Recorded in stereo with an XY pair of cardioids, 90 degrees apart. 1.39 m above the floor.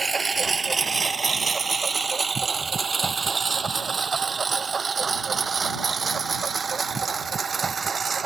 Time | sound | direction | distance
0.0 | a lawn mower | 35° right | ?